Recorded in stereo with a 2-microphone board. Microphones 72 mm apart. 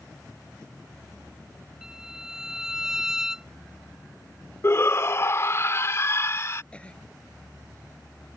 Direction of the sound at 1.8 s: 10° right (ahead or behind).